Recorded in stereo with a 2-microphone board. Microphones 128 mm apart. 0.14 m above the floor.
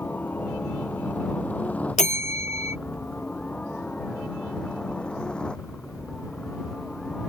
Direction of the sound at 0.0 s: 15° left (ahead or behind).